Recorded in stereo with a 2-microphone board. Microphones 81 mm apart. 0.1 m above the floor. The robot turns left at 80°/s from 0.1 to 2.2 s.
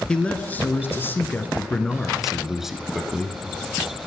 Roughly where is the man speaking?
Centre.